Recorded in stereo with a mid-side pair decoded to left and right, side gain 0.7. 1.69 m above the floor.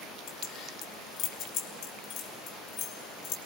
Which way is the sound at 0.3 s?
50° left.